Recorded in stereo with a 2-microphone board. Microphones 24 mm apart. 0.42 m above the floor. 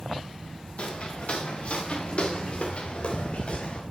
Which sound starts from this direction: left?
Footsteps, at 0.8 s.